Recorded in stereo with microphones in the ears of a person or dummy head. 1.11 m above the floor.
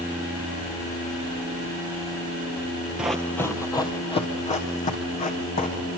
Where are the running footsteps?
5° right (ahead or behind), 1.4 m; by 5.9 s 40° left (ahead or behind), 4 m.